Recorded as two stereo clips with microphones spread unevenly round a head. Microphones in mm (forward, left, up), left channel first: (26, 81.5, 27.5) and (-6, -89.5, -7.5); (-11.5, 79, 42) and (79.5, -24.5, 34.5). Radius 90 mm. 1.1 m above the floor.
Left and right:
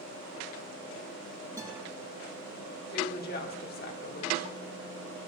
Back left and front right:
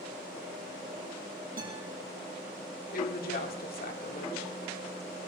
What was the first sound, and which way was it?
A guitar, 25° right.